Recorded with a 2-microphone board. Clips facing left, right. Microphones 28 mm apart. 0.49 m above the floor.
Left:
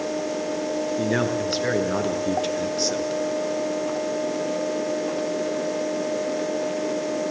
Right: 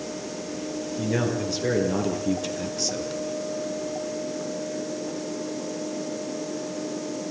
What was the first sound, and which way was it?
A man speaking, 40° left (ahead or behind).